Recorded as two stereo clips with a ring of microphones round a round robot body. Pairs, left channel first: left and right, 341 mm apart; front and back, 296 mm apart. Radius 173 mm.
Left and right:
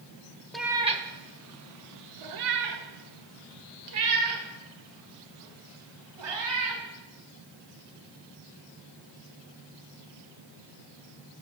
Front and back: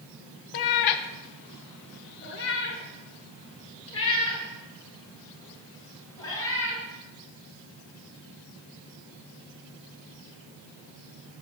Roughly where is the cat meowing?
Ahead.